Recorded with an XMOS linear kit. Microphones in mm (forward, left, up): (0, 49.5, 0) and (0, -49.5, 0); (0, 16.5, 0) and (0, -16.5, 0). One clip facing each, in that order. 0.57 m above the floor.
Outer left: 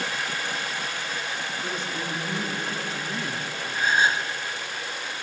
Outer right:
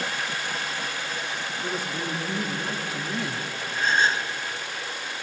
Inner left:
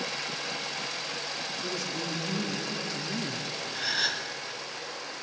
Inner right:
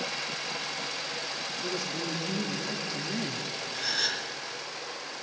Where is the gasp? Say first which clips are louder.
Even, inner left 2 dB; 10° left (ahead or behind), 0.9 m.